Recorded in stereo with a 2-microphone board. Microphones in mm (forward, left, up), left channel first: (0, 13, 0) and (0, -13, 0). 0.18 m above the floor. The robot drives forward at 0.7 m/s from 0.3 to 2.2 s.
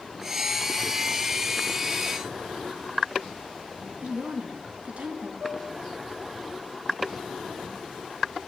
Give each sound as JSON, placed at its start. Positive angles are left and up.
{"t": 4.0, "sound": "a woman speaking", "side_deg": -60, "distance_m": 1.9}
{"t": 5.4, "sound": "dishes clattering", "side_deg": -75, "distance_m": 7.5}